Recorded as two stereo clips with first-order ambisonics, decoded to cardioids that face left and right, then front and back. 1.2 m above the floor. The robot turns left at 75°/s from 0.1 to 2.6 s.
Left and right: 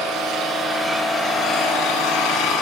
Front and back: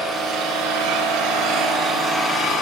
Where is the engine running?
120° right, 1.6 m; by 2.6 s 55° left, 1.6 m.